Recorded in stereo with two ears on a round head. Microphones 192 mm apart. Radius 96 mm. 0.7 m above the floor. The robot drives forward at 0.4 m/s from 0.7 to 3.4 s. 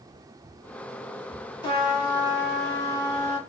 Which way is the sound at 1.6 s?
25° left (ahead or behind).